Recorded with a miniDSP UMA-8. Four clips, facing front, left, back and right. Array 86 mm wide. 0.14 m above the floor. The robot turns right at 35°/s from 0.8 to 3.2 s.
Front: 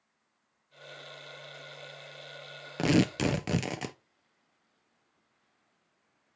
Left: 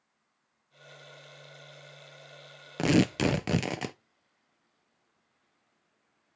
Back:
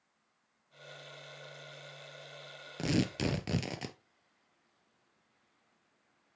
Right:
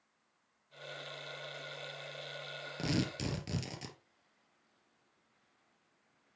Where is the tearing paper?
55° left, 0.5 m; by 4.0 s 70° left, 0.5 m.